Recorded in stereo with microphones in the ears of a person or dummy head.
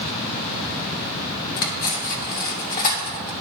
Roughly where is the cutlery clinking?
Left.